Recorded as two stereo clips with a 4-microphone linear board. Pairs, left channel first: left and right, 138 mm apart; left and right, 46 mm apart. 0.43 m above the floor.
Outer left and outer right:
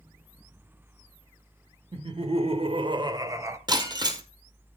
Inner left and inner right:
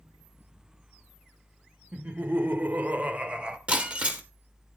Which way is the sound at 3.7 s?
30° right (ahead or behind).